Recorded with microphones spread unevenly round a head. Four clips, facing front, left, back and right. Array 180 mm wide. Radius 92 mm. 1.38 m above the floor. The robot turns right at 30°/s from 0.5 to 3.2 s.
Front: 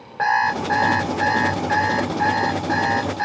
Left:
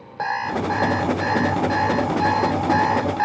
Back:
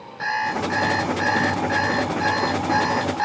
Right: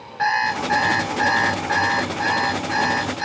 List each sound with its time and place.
0.2 s an alarm clock: 35° left, 3 m; by 3.2 s 120° left, 3 m